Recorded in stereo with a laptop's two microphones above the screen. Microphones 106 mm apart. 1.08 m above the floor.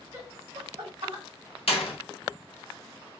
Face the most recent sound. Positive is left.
turn(degrees=70)  # may be behind; listen again after turning